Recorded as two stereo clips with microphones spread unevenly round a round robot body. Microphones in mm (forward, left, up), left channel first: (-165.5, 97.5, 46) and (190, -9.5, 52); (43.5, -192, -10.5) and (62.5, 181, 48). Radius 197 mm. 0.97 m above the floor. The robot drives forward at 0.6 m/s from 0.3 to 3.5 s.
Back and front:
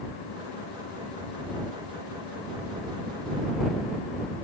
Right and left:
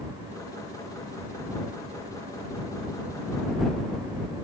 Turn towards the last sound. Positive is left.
No sound to turn to.